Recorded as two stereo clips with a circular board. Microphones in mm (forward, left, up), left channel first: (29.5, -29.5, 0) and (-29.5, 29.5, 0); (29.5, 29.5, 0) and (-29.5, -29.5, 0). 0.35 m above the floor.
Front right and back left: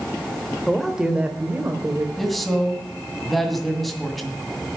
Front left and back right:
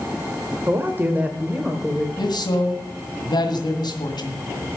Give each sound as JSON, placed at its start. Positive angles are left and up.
{"t": 0.7, "sound": "a man speaking", "azimuth_deg": -125, "distance_m": 1.2}
{"t": 2.2, "sound": "a man speaking", "azimuth_deg": 45, "distance_m": 2.0}